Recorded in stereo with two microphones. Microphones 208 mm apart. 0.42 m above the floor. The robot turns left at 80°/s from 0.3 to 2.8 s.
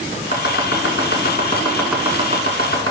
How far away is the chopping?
About 2 m.